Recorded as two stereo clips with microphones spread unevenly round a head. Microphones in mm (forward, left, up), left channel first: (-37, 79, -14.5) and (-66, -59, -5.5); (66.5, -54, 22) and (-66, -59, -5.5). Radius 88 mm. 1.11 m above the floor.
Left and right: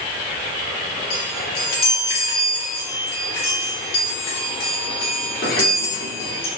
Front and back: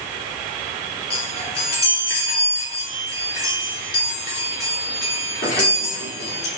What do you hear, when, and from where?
1.1 s a chime: 40° left, 2.5 m